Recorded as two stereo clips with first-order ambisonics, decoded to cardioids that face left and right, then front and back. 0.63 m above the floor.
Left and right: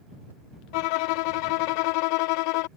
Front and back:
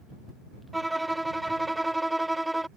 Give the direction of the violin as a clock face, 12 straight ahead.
9 o'clock.